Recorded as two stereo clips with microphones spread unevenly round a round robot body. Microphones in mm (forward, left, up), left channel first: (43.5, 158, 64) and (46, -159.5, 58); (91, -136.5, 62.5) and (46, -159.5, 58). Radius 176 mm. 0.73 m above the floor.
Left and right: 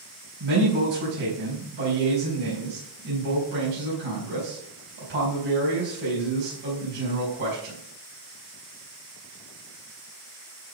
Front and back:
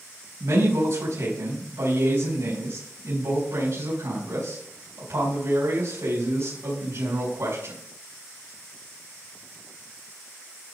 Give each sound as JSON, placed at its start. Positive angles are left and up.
{"t": 0.4, "sound": "a man speaking", "azimuth_deg": -150, "distance_m": 4.5}